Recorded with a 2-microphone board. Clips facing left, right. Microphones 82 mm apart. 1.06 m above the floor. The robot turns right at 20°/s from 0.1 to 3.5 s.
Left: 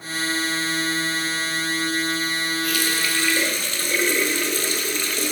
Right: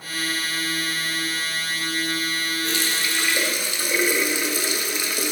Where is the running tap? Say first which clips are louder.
Left 2 dB; 30° right (ahead or behind), 0.8 m; by 5.3 s 10° right (ahead or behind), 0.8 m.